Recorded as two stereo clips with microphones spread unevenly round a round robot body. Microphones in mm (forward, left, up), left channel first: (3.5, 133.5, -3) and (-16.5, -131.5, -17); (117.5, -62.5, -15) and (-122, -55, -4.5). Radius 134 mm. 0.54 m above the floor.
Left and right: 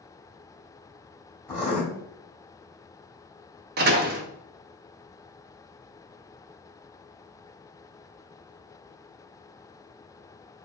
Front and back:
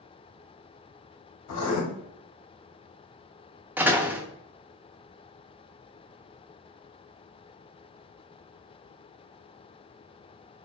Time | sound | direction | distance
1.5 | writing | straight ahead | 1.9 m
3.8 | a door slam | 100° right | 0.6 m